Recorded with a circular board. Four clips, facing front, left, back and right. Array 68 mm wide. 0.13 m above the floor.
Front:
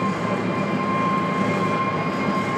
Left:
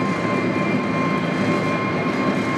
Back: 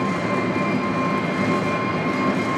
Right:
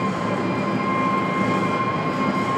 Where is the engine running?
120° left, 0.7 m.